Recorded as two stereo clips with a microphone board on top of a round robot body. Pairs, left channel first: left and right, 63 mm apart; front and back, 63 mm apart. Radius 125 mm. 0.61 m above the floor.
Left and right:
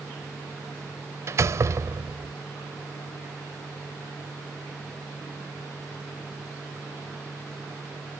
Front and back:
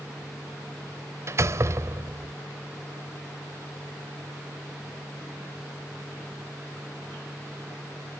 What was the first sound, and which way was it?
A door slam, 135° right.